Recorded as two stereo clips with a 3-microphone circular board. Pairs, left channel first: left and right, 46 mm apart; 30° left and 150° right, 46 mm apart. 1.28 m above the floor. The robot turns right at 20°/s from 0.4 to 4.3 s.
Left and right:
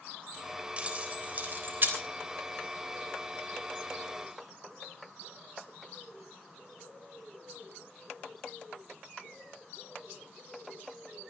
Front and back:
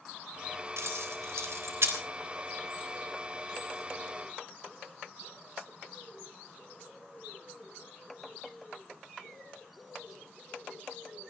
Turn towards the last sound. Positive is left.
turn(degrees=-85)